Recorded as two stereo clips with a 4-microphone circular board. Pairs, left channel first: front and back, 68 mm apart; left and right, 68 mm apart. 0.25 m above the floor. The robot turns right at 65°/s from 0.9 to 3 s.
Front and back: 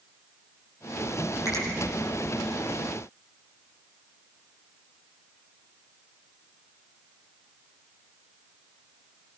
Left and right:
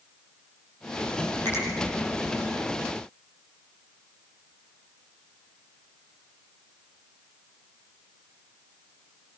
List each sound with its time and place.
1.4 s a finger snap: 35° left, 9 m; by 1.7 s 45° left, 9 m